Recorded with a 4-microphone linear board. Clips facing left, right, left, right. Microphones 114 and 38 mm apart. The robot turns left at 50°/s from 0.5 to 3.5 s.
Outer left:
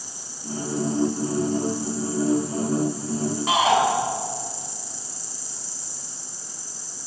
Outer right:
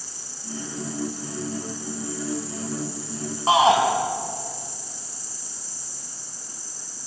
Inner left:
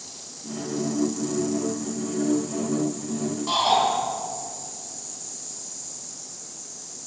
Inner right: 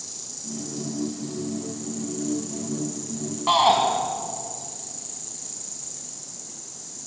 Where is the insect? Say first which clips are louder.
Outer left 3 dB, inner left 1 dB; 20° left, 5.5 m; by 7.1 s 130° right, 5.5 m.